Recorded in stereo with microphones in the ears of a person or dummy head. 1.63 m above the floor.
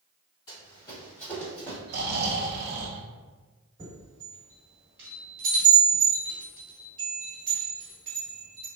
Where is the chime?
30° right (ahead or behind), 1.6 m.